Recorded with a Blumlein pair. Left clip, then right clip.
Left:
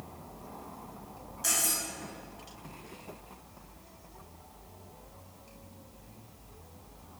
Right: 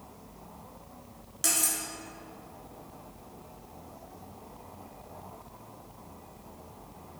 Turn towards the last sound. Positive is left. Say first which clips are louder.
# right 1 dB
turn(degrees=-55)